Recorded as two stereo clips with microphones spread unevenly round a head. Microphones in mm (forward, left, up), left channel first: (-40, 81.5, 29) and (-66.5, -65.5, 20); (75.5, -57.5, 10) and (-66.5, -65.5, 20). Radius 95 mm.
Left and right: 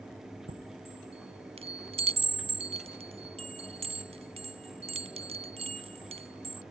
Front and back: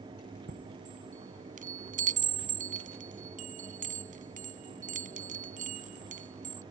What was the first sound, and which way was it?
A chime, 150° right.